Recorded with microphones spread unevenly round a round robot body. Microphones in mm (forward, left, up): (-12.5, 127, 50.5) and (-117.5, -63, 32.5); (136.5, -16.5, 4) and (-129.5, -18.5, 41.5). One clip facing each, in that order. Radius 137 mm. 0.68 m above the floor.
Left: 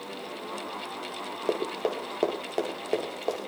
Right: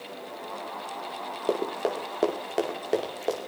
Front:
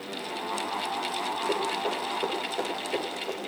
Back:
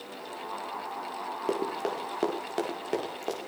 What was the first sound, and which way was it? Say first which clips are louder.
Running footsteps: right 1 dB, back 1 dB; 155° left.